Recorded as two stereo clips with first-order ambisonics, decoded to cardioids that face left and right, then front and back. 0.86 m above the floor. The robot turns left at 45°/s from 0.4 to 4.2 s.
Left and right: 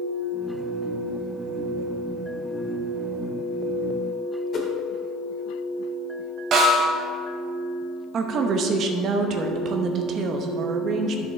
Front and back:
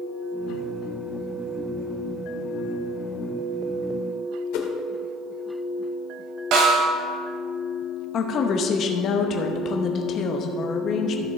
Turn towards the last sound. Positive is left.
turn(degrees=-50)